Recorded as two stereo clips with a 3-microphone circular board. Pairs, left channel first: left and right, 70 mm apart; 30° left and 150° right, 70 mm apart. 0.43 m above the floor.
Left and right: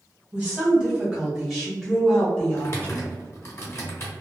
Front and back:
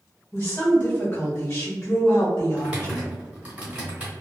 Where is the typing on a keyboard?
140° left, 1.2 m.